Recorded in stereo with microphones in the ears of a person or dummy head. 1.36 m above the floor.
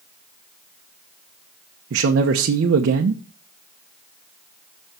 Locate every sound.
1.9 s a man speaking: 70° right (ahead or behind), 0.8 m